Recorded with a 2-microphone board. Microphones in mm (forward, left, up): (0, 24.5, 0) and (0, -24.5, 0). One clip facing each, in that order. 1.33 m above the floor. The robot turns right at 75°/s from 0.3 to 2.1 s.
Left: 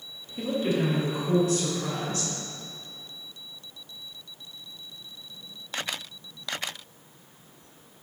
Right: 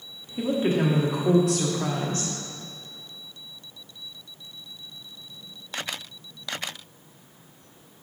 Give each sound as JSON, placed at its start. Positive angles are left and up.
{"t": 0.4, "sound": "a woman speaking", "azimuth_deg": -170, "distance_m": 1.1}